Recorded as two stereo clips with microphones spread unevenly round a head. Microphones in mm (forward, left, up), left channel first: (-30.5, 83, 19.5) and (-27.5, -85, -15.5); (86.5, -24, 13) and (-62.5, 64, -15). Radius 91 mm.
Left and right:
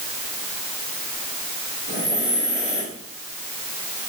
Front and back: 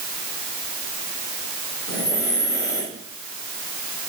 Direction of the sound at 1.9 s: 45° left.